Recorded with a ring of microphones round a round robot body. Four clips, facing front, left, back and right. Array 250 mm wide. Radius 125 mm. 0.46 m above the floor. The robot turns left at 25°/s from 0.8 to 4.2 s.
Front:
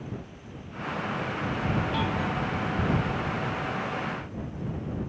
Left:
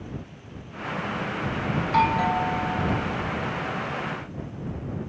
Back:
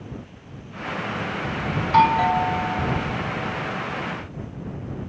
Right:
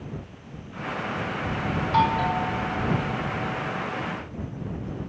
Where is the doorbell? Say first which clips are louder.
Even, back 12 dB; straight behind; by 3.0 s 150° left.